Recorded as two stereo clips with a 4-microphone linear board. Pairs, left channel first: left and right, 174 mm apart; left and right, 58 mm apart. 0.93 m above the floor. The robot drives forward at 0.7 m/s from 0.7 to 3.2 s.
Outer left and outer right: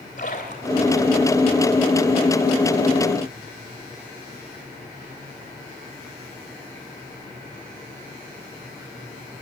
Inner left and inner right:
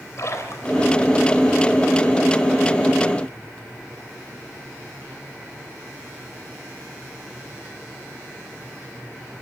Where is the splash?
45° left (ahead or behind), 3.5 m; by 1.2 s 50° left (ahead or behind), 3.5 m.